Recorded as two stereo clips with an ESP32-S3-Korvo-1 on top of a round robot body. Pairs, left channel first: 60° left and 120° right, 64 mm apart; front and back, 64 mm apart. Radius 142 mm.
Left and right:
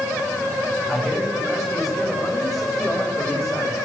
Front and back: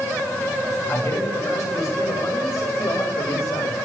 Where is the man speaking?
35° right, 8.5 m; by 3.8 s 25° right, 6.5 m.